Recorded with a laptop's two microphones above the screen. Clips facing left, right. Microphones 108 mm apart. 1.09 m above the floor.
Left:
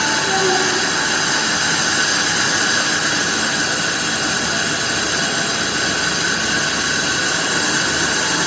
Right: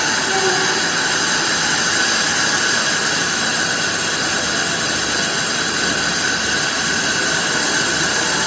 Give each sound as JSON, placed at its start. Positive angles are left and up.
{"t": 0.2, "sound": "a child speaking", "side_deg": 25, "distance_m": 5.5}